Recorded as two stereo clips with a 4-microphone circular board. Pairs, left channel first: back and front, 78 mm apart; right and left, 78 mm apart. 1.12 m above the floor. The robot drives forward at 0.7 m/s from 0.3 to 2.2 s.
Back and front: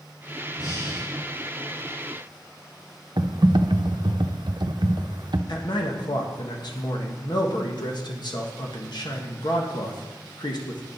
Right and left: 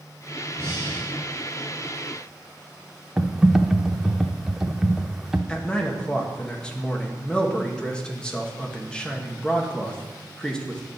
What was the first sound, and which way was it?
Breathing, 150° left.